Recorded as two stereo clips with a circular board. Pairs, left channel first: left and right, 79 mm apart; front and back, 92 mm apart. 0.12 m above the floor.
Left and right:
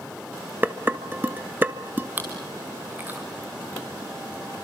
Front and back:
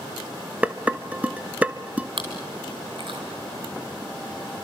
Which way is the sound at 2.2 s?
155° right.